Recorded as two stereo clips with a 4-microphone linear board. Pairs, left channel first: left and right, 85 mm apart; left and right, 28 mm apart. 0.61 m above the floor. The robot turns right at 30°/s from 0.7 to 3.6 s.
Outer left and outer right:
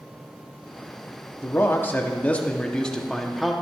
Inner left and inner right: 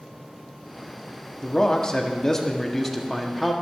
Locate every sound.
1.4 s a man speaking: 120° left, 0.9 m; by 3.5 s 175° right, 0.9 m